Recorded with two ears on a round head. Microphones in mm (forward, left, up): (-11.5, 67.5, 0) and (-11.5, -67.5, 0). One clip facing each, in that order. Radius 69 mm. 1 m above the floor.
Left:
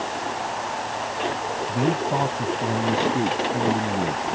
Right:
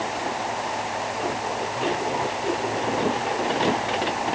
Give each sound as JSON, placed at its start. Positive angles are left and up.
{"t": 1.7, "sound": "a man speaking", "side_deg": 65}